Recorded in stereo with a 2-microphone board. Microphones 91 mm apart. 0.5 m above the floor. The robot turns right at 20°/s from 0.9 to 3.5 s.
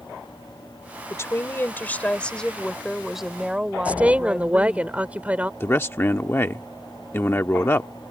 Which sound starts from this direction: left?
A man speaking, at 5.6 s.